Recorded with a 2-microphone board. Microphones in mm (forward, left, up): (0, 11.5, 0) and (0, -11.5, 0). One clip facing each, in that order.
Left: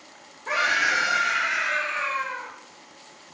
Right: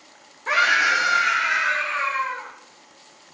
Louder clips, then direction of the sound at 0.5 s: Right 4 dB; 20° right (ahead or behind).